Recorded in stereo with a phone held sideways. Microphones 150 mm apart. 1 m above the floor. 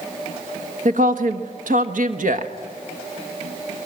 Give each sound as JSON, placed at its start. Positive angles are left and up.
{"t": 0.8, "sound": "a woman speaking", "side_deg": -70, "distance_m": 1.2}